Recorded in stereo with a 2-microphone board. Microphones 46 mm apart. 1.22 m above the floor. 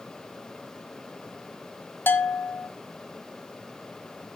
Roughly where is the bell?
Left.